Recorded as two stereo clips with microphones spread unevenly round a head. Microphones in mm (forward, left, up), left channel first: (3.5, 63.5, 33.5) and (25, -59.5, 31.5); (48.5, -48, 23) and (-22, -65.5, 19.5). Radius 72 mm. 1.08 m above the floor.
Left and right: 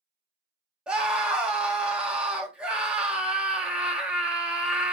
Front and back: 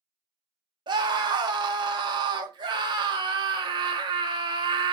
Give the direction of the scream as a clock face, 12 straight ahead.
5 o'clock.